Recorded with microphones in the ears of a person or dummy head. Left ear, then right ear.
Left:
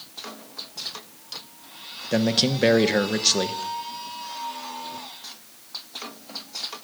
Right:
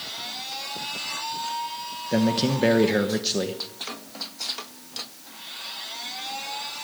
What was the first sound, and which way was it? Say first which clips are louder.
A man speaking: left 2 dB; 25° left (ahead or behind).